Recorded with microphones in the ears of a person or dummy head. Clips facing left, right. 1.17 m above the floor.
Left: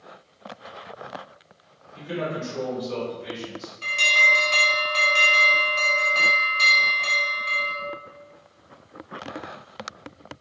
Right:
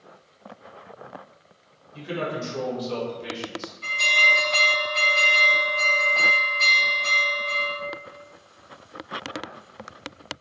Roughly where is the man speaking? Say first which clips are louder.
Even; right.